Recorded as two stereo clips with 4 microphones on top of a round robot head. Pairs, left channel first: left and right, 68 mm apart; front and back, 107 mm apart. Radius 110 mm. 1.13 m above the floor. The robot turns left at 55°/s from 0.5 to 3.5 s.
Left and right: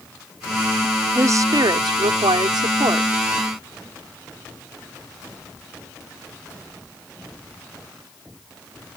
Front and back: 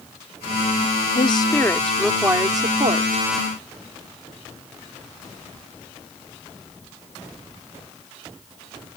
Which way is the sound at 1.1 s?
40° right.